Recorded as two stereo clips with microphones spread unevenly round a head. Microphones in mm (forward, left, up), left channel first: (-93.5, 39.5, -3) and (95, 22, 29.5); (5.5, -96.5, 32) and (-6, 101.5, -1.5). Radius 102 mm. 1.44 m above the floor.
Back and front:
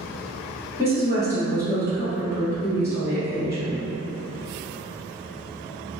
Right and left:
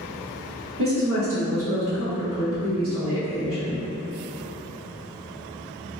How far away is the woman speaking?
About 1.6 m.